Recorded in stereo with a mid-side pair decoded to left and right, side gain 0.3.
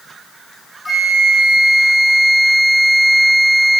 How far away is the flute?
About 4.5 m.